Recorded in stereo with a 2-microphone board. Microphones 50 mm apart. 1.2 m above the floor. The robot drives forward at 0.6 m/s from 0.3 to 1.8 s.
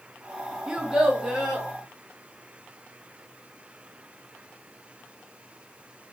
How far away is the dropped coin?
I don't hear a dropped coin.